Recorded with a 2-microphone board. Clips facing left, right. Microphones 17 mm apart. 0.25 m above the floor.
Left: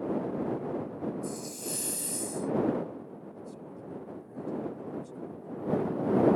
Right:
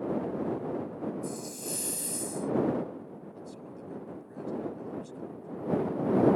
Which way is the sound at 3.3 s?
25° right (ahead or behind).